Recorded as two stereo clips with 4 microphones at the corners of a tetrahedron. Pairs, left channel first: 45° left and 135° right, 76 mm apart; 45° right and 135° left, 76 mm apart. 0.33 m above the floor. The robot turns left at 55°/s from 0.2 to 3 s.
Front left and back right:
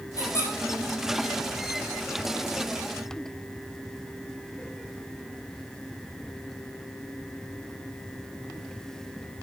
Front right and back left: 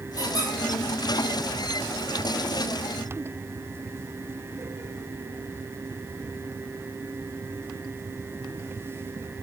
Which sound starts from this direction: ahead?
A squeak, at 0.2 s.